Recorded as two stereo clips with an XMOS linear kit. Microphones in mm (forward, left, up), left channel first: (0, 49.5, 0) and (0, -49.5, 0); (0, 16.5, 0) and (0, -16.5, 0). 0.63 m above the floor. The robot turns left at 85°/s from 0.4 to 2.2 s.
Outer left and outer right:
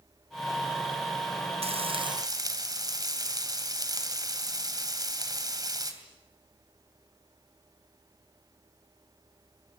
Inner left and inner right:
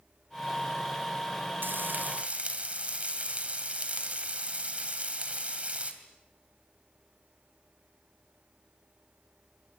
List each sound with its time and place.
1.6 s frying: 90° right, 2.5 m; by 5.9 s 140° right, 2.5 m